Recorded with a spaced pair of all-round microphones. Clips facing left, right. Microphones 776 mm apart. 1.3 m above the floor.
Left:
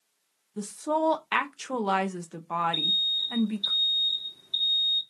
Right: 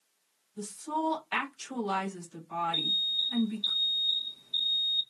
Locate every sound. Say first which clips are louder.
0.6 s a woman speaking: left 6 dB; 70° left (ahead or behind), 1.2 m
2.7 s an alarm: left 3 dB; 65° left (ahead or behind), 1.8 m